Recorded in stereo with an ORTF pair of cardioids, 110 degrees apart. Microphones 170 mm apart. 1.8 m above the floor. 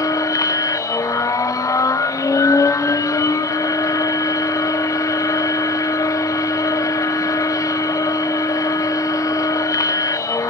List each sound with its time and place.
0.0 s a machine running: 20° left, 1.0 m